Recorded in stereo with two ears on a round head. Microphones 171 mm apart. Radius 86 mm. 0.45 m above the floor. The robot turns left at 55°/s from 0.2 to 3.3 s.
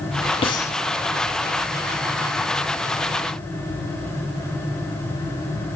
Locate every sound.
0.4 s breathing: 30° left (ahead or behind), 0.7 m; by 0.8 s 10° left (ahead or behind), 0.7 m